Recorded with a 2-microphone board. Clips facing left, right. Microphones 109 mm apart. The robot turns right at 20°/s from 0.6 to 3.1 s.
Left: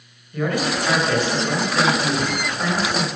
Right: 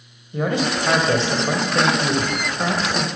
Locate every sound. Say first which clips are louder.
0.3 s a man speaking: right 1 dB; 25° right (ahead or behind), 1.7 m